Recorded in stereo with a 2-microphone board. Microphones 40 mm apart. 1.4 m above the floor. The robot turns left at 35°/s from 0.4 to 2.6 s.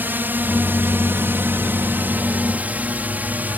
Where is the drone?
55° right (ahead or behind); by 3.6 s 45° right (ahead or behind).